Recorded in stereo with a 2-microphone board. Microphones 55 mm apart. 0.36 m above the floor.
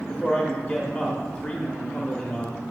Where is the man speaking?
25° left (ahead or behind), 0.9 m.